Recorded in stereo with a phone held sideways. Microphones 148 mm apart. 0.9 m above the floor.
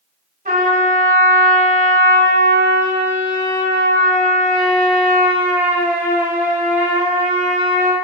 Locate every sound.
0.5 s a trumpet: 65° right (ahead or behind), 1.1 m